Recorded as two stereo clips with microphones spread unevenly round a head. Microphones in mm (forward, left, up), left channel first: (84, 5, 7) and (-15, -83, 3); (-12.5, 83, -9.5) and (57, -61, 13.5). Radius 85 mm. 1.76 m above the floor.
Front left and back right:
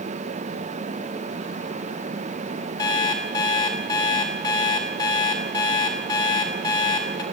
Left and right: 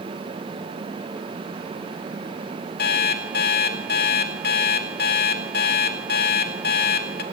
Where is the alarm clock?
105° left, 1.7 m.